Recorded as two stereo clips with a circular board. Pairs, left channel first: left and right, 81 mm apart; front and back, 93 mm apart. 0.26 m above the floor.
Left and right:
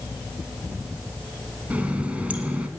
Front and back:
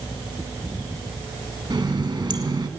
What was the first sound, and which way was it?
A running tap, 160° right.